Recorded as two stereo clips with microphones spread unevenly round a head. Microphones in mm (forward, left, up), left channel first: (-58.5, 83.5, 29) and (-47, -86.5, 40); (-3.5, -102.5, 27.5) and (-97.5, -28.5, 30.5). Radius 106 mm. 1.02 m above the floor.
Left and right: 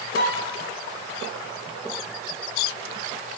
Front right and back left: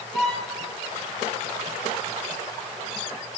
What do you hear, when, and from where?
0.1 s a violin: 55° left, 4.5 m